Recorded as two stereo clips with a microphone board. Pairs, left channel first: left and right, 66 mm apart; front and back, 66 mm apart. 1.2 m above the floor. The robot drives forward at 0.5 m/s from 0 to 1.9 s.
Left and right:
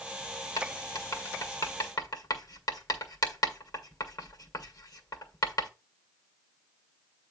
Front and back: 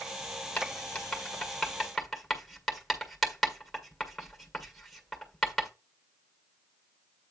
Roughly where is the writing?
Ahead left.